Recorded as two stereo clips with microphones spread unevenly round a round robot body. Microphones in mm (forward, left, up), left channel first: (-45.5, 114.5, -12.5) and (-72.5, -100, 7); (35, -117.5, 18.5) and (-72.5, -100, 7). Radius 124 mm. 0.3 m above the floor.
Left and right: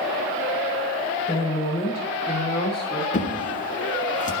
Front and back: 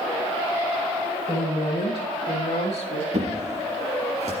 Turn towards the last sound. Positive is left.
turn(degrees=135)